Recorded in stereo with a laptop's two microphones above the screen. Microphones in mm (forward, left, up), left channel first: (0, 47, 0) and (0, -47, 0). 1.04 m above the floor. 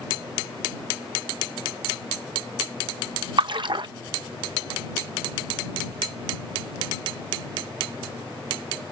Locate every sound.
3.4 s a splash: 55° right (ahead or behind)